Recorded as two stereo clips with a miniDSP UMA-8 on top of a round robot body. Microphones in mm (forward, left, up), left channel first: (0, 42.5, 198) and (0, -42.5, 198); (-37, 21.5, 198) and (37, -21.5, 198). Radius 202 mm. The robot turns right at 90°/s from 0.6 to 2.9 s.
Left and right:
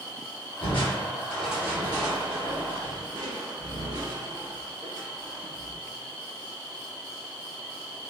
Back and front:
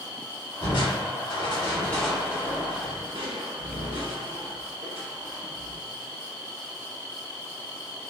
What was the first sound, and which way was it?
Crushing, 110° left.